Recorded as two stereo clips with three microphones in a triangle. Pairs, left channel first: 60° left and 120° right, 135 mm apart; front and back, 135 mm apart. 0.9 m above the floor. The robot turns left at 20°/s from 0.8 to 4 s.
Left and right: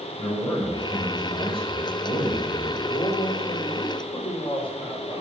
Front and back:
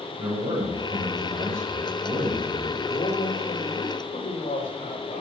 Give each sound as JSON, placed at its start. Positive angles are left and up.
{"t": 0.2, "sound": "a man speaking", "azimuth_deg": 125, "distance_m": 5.5}
{"t": 2.9, "sound": "a man speaking", "azimuth_deg": 30, "distance_m": 3.0}